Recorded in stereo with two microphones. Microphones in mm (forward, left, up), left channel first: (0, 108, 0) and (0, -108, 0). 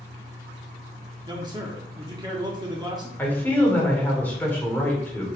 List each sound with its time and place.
1.3 s a man speaking: 20° right (ahead or behind), 0.7 m
3.2 s a man speaking: 10° left (ahead or behind), 1.5 m